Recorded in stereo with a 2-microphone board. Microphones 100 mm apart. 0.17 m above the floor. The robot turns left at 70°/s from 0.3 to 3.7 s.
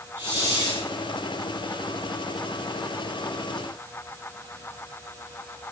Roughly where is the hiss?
Ahead.